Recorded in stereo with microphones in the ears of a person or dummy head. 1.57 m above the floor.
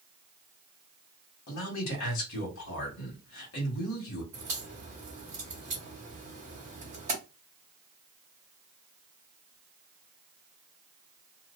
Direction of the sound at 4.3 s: 10° right (ahead or behind).